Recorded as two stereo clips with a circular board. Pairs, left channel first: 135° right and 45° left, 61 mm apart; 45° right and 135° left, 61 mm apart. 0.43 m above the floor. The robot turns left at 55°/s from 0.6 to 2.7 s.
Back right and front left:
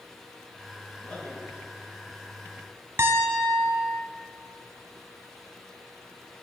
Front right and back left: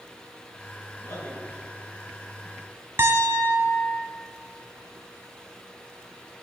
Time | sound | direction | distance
1.0 | a man speaking | 55° right | 5.5 m
3.0 | a piano | 90° left | 1.0 m